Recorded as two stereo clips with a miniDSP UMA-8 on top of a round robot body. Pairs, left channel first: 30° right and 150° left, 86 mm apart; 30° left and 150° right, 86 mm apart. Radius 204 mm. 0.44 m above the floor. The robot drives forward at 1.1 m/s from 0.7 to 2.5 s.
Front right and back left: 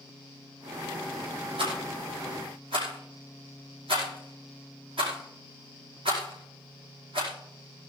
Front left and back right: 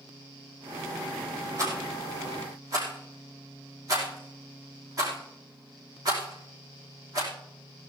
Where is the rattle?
155° left, 5 m; by 7.3 s 160° left, 5.5 m.